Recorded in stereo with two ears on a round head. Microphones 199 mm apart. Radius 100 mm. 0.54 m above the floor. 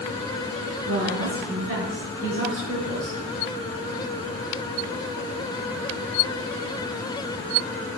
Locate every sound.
0.9 s a woman speaking: 45° right (ahead or behind), 6 m; by 3.2 s 30° right (ahead or behind), 6.5 m